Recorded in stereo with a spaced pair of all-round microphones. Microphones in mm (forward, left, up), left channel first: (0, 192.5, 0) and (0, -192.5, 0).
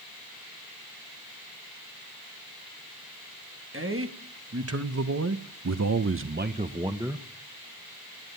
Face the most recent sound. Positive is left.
turn(degrees=-5)  # may be behind; listen again after turning